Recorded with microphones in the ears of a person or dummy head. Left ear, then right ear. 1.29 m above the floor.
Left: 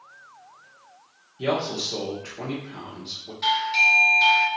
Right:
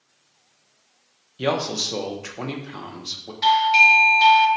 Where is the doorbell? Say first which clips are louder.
Right 5 dB; 15° right (ahead or behind), 0.6 m.